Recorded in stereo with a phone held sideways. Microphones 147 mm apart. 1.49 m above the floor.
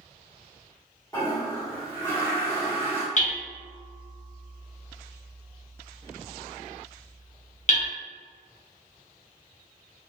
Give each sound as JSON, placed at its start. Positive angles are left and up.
{"t": 1.1, "sound": "a toilet flushing", "side_deg": 20, "distance_m": 1.0}
{"t": 3.2, "sound": "hammering", "side_deg": 50, "distance_m": 0.7}